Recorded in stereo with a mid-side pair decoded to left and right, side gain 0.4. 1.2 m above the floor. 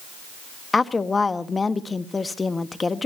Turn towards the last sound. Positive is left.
turn(degrees=25)